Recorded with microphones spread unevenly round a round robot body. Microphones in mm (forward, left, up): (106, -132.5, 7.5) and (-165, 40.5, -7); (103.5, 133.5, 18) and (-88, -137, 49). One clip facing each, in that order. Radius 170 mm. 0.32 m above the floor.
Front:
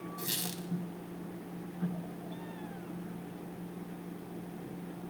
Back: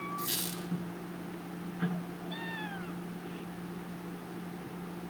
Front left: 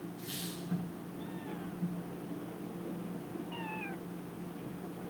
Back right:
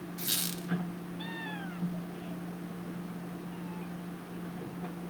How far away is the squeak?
About 1.2 m.